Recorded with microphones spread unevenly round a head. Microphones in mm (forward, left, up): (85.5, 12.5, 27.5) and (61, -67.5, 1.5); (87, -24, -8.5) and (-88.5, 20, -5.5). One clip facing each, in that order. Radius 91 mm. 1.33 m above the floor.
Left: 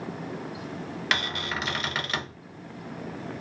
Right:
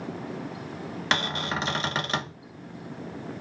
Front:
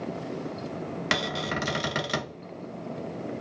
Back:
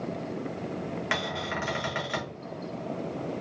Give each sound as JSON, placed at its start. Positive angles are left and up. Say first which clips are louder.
{"t": 1.1, "sound": "a cupboard door", "louder": "right 3 dB, front 2 dB", "azimuth_deg": -40, "distance_m": 0.7}